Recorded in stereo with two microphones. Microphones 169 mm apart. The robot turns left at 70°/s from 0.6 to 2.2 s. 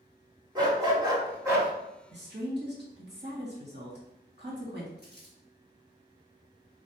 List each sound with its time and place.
0.6 s a dog barking: 20° right (ahead or behind), 1.3 m; by 1.7 s 10° right (ahead or behind), 1.3 m
2.1 s a woman speaking: 75° right (ahead or behind), 1.9 m; by 4.9 s 70° right (ahead or behind), 1.9 m
5.0 s crumpling: 70° right (ahead or behind), 1.7 m